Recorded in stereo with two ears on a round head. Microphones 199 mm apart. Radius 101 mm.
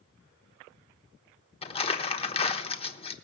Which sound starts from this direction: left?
Crumpling, at 1.6 s.